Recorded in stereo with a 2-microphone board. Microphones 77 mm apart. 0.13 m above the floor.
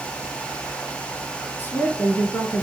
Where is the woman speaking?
30° left (ahead or behind), 1.9 m.